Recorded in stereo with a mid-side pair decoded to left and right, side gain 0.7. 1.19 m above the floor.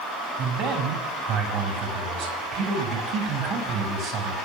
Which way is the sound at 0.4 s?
55° right.